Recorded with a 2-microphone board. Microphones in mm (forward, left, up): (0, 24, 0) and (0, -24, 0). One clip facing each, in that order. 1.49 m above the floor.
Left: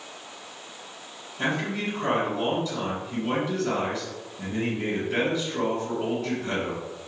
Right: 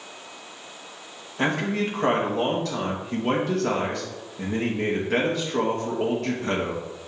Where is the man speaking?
65° right (ahead or behind), 2.5 m.